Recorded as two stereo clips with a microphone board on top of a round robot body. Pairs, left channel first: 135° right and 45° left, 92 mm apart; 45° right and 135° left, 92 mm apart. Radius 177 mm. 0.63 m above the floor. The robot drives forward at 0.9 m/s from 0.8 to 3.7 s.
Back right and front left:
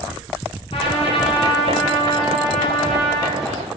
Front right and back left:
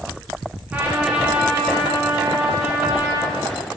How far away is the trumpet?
About 9 m.